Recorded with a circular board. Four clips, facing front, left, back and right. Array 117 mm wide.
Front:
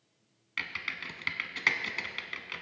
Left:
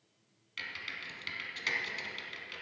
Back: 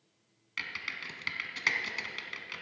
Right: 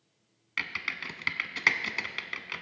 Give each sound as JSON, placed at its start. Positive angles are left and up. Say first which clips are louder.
{"t": 0.6, "sound": "typing on a keyboard", "louder": "right 7 dB, front 2 dB", "azimuth_deg": -80, "distance_m": 0.7}